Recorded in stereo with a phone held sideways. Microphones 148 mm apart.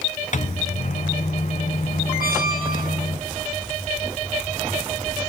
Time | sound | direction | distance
0.3 | a microwave | 55° left (ahead or behind) | 0.8 m
2.2 | a squeak | 80° left | 3 m